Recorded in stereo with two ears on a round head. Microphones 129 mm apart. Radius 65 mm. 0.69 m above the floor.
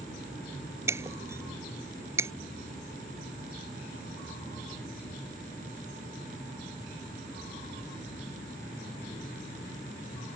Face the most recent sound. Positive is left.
turn(degrees=-20)  # may be behind; listen again after turning